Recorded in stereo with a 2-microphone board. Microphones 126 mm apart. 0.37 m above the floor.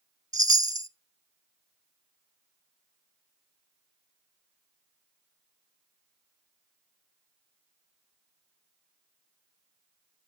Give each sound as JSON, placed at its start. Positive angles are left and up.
{"t": 0.3, "sound": "a chime", "side_deg": -30, "distance_m": 0.6}